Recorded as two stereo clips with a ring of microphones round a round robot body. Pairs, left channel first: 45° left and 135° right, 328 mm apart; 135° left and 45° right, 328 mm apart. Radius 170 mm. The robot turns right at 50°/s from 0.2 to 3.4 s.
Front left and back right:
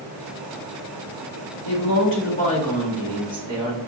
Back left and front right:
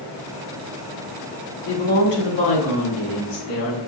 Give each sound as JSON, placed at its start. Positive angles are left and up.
{"t": 1.6, "sound": "a woman speaking", "azimuth_deg": 75, "distance_m": 2.0}